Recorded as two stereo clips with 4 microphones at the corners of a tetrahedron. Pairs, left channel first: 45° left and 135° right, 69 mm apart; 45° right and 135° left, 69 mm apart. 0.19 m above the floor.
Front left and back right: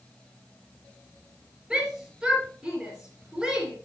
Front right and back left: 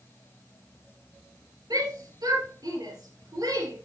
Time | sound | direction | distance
1.7 | a shout | 145° left | 3.5 m